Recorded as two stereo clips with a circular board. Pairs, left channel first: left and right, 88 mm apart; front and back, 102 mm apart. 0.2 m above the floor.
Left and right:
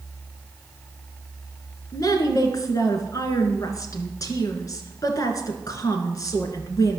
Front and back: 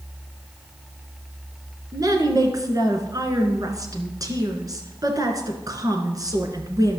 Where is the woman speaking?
130° left, 2 m.